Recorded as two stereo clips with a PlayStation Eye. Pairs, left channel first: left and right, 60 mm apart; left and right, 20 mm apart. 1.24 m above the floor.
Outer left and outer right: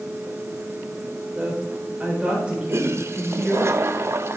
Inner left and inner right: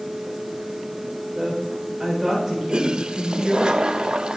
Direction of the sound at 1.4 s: 20° right (ahead or behind).